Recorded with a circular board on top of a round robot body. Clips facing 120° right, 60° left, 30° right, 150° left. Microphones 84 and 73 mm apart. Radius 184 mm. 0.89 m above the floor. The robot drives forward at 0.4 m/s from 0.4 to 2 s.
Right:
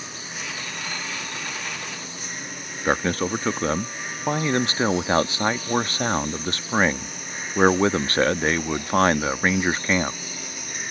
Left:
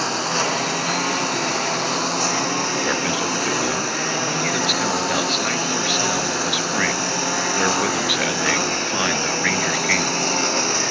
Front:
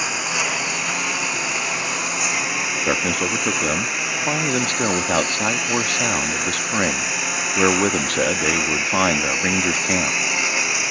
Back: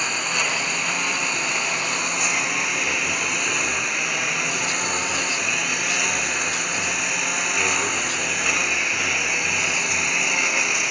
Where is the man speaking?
60° right.